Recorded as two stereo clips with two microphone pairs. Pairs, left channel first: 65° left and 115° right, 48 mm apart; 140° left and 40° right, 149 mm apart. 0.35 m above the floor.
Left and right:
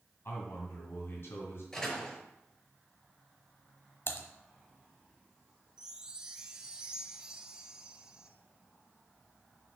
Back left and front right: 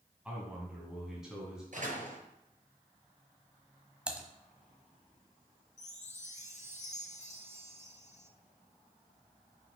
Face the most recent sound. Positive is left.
turn(degrees=170)